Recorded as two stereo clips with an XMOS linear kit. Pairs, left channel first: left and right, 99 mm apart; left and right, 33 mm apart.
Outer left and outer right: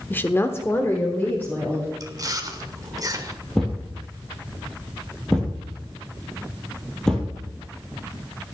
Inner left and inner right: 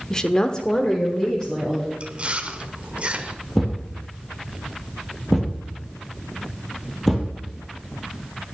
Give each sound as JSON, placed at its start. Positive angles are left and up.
{"t": 0.1, "sound": "a woman speaking", "side_deg": 20, "distance_m": 1.0}
{"t": 2.0, "sound": "chewing", "side_deg": -35, "distance_m": 1.3}
{"t": 3.5, "sound": "a thud", "side_deg": 5, "distance_m": 3.0}